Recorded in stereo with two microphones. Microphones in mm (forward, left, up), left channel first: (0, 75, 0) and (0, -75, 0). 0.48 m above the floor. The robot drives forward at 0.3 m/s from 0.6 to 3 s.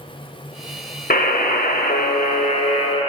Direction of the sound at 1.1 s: 75° left (ahead or behind).